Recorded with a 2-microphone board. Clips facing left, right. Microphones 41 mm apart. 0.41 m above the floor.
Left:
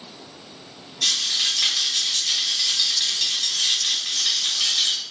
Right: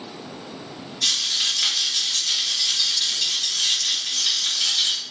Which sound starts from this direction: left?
A rattle, at 1.0 s.